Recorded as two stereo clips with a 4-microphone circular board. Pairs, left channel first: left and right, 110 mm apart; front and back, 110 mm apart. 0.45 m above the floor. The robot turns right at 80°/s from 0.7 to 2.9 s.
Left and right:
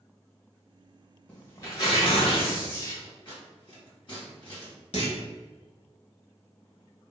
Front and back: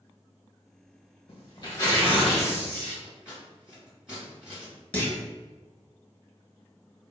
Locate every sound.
1.3 s tearing paper: 10° left, 1.1 m; by 2.9 s 135° left, 1.1 m
3.0 s scissors: 100° left, 2.0 m
4.9 s a clunk: 75° left, 1.2 m